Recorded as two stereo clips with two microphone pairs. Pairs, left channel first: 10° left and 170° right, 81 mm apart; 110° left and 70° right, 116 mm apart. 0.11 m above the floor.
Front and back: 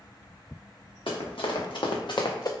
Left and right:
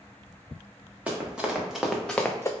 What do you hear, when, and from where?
1.1 s running footsteps: 10° left, 1.2 m; by 2.5 s 50° left, 0.5 m